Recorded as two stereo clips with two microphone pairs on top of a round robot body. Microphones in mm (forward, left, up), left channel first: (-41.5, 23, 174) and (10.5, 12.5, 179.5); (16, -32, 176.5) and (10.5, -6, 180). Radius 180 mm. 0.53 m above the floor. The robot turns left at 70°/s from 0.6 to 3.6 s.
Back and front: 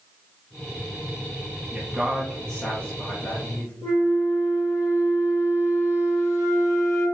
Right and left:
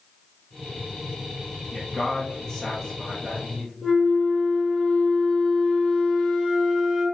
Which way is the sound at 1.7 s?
70° right.